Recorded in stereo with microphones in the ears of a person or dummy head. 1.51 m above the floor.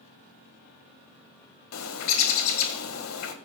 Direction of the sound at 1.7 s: 75° left (ahead or behind).